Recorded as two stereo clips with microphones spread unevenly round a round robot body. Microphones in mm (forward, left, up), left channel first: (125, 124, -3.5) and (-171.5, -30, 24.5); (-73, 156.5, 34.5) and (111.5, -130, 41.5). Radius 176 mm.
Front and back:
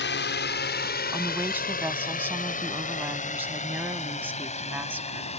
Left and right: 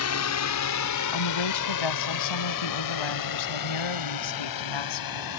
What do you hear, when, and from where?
0.0 s a drone: 80° left; by 5.4 s 100° left
1.1 s a woman speaking: 125° left